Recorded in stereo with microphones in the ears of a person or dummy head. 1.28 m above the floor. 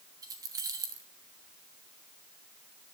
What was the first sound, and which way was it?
Keys jangling, 15° right (ahead or behind).